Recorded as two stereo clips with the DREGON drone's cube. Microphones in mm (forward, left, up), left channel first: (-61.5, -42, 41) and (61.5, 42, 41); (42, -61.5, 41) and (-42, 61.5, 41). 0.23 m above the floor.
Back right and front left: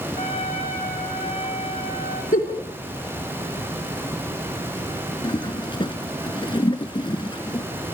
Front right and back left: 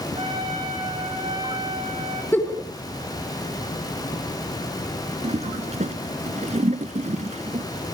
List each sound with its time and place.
0.2 s a trumpet: 175° left, 5 m
2.3 s a giggle: 130° right, 3 m
5.2 s a toilet flushing: 160° left, 1.0 m